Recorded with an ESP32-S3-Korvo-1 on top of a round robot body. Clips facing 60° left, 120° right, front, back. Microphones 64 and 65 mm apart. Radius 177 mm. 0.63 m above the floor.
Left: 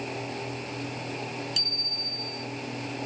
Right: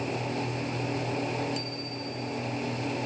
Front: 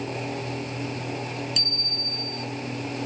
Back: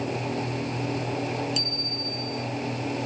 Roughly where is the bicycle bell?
Ahead left.